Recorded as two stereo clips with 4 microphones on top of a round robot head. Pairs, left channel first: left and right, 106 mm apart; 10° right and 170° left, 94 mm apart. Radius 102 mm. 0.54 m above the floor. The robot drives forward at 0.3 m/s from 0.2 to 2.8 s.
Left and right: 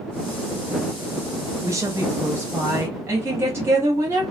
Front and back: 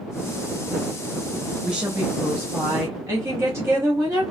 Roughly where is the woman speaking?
Behind right.